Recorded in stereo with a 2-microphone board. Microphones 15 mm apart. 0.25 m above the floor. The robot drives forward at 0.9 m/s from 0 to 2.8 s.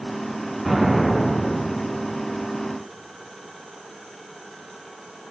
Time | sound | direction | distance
0.7 | an explosion | 5° left (ahead or behind) | 2.5 m